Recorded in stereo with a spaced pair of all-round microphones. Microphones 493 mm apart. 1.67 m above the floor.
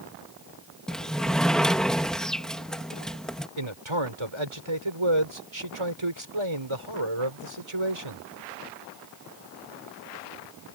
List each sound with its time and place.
0.9 s a sliding door: centre (ahead or behind)
3.6 s a man speaking: 70° right (ahead or behind)